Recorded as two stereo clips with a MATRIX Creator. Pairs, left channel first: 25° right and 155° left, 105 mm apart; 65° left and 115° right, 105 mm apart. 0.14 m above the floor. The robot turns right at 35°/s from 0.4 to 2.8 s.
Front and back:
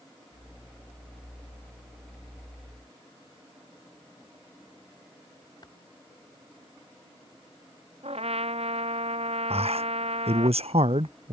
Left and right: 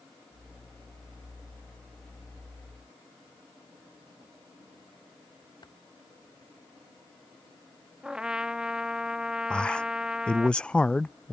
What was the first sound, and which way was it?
Typing on a keyboard, 25° left.